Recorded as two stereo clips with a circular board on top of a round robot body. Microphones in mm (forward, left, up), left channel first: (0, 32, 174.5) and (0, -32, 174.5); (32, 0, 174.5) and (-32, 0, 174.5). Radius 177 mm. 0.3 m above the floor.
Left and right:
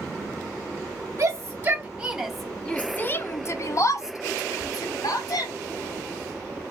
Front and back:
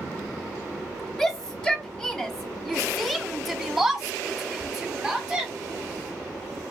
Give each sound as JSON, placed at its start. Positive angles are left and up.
{"t": 1.2, "sound": "a shout", "azimuth_deg": -70, "distance_m": 1.0}